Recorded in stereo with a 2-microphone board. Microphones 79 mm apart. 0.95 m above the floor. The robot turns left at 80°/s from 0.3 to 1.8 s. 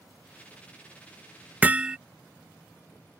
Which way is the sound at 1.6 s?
20° right (ahead or behind).